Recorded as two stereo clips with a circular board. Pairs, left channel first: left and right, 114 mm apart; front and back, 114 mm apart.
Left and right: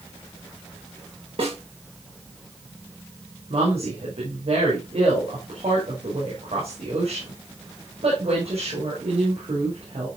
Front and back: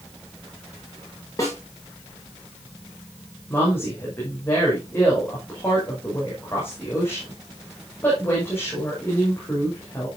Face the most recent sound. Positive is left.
turn(degrees=-70)